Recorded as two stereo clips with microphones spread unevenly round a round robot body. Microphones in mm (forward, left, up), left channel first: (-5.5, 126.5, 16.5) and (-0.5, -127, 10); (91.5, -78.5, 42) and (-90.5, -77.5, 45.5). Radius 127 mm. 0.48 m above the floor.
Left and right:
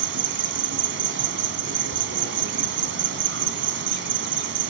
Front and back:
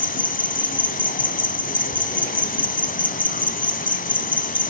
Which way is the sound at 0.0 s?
40° right.